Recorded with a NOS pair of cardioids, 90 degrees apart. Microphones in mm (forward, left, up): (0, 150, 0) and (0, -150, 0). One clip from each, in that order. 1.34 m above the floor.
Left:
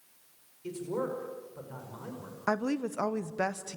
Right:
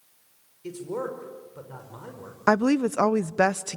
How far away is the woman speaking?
About 0.5 m.